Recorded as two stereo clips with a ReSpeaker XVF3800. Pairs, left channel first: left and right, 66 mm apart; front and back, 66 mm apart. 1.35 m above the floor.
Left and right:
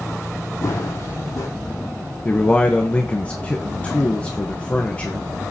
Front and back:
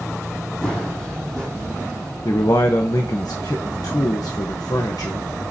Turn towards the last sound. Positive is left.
turn(degrees=20)